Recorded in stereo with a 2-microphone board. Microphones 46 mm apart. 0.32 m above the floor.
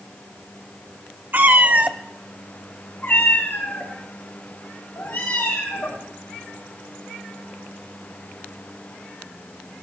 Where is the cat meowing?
50° right (ahead or behind), 1.1 m; by 6.0 s 50° left (ahead or behind), 6 m.